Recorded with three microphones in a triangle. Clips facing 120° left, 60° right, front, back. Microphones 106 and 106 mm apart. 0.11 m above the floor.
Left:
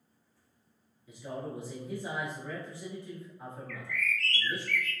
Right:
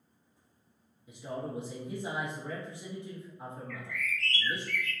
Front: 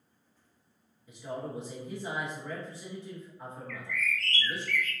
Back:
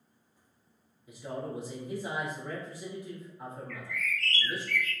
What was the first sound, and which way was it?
A man speaking, 110° right.